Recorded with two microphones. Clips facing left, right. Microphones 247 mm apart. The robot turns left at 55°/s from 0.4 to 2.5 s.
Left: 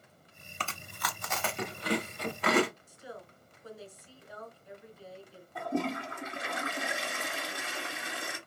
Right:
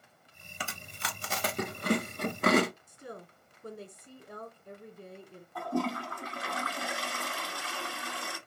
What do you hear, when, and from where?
0.6 s chewing: 10° right (ahead or behind), 1.1 m; by 2.7 s 45° right (ahead or behind), 1.1 m
2.9 s a woman speaking: 60° right (ahead or behind), 2 m
5.5 s a toilet flushing: 20° left (ahead or behind), 1.5 m